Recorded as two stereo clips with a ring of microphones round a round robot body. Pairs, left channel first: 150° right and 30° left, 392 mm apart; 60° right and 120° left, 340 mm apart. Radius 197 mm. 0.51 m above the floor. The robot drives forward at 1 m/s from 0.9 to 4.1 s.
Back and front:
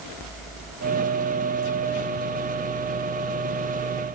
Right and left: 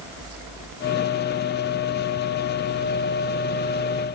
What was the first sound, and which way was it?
Only background noise.